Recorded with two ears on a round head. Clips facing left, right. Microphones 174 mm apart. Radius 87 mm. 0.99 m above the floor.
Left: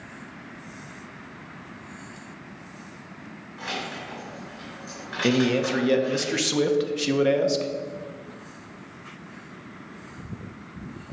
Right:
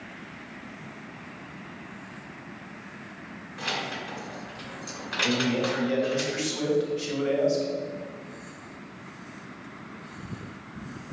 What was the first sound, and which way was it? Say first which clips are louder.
Keys jangling: even; 50° right (ahead or behind).